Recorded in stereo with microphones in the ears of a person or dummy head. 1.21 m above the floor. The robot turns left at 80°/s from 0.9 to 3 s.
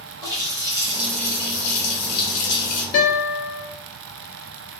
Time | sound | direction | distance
0.2 | a running tap | 165° right | 1.1 m
2.9 | a guitar | 55° left (ahead or behind) | 1.2 m